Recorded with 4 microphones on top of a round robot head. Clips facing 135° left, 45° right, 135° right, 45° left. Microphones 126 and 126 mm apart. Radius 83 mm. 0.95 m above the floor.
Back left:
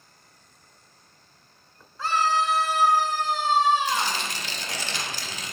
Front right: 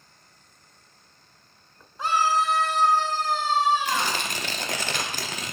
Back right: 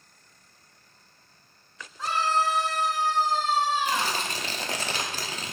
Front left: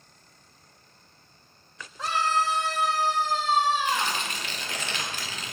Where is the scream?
25° left, 1.3 m; by 4.2 s 80° left, 2.5 m.